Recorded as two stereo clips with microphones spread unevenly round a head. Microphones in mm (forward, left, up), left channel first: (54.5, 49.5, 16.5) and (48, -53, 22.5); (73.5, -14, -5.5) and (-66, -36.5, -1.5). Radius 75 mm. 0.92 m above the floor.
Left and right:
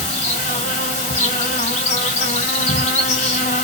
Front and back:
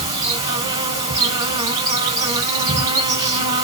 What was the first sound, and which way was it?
An insect, 120° left.